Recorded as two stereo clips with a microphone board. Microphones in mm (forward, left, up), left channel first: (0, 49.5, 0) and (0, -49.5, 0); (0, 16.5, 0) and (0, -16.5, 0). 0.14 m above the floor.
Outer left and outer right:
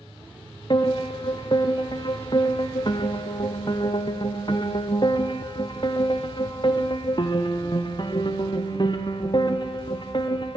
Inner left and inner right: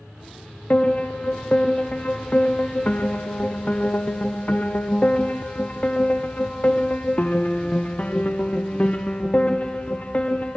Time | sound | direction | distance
0.7 | a piano | 45° left (ahead or behind) | 1.8 m